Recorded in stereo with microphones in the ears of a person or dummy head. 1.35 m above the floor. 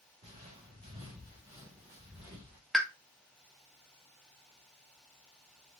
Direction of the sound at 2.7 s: 5° left (ahead or behind).